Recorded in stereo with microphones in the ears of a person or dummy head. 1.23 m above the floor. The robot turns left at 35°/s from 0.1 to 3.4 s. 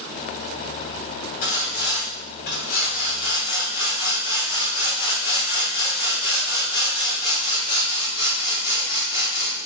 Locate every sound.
1.4 s sawing: 105° left, 1.8 m; by 9.6 s 40° left, 1.8 m